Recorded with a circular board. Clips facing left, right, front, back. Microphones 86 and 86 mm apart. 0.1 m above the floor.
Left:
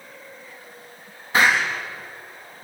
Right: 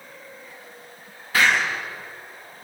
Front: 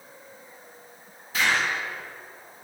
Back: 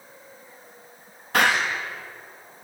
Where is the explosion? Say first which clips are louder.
Left 1 dB, back 4 dB; 160° left, 6 m.